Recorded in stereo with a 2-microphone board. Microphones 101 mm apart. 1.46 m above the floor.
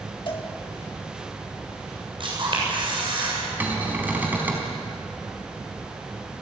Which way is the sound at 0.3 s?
50° left (ahead or behind).